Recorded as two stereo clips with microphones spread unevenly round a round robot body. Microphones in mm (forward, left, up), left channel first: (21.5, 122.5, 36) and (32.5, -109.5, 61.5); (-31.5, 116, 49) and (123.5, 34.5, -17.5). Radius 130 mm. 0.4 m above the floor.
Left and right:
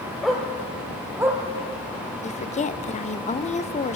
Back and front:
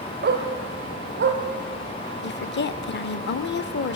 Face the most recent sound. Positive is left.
turn(degrees=135)